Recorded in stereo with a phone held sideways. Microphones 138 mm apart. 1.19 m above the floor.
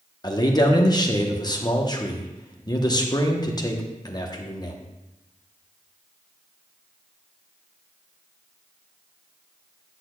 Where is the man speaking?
30° left (ahead or behind), 1.0 m.